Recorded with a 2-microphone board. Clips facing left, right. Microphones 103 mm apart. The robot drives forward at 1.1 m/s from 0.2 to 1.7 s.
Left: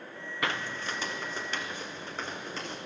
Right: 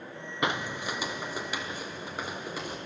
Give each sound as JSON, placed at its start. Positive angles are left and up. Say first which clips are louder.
{"t": 0.4, "sound": "footsteps", "louder": "right 3 dB", "side_deg": -20, "distance_m": 0.6}